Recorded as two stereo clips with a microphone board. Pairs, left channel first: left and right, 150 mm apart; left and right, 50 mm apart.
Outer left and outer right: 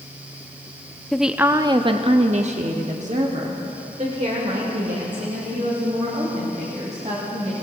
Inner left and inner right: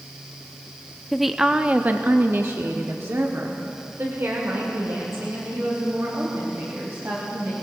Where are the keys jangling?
I don't hear keys jangling.